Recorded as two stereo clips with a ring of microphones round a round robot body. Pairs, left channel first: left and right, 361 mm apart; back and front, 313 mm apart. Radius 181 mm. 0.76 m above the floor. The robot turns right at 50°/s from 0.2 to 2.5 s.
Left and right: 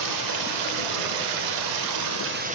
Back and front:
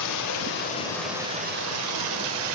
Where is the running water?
135° right, 1.6 m; by 2.5 s 20° right, 1.6 m.